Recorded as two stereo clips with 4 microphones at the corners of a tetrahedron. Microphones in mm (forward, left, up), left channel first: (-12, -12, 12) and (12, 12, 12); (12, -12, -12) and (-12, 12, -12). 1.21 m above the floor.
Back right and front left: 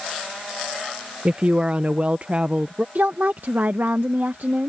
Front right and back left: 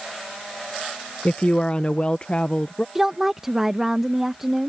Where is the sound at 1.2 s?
5° left.